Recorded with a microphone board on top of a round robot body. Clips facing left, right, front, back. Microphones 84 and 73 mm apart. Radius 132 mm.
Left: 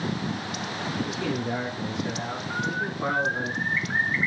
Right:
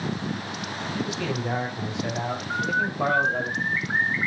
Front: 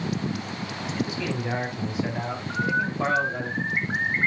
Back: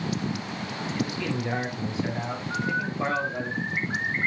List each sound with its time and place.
0.9 s a man speaking: 75° right, 5 m; by 3.5 s 70° right, 3.5 m
2.5 s a bird: 30° right, 2 m